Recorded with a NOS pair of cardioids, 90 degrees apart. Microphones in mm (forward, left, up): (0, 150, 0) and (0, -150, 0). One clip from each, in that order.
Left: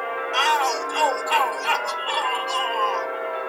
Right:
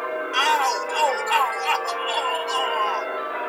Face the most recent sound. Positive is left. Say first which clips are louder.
# even
turn(degrees=0)